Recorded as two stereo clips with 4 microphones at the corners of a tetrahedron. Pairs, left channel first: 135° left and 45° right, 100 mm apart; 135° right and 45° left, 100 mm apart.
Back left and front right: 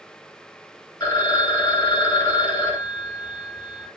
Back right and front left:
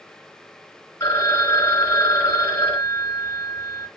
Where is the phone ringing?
170° left, 1.2 m.